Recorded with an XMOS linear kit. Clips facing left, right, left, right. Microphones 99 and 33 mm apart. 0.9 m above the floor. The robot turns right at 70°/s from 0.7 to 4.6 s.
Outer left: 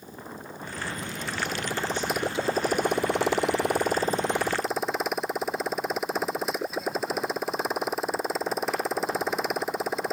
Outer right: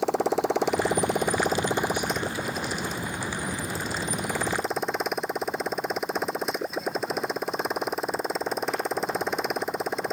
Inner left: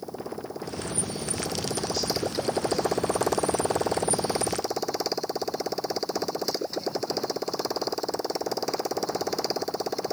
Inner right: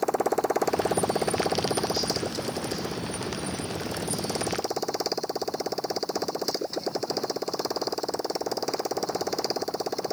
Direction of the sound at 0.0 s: 95° right.